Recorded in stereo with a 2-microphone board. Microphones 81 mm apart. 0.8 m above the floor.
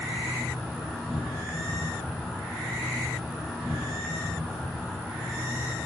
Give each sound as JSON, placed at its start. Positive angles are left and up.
{"t": 0.0, "sound": "an insect", "side_deg": -5, "distance_m": 4.5}